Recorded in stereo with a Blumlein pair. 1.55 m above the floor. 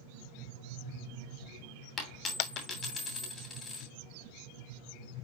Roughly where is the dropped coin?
Ahead.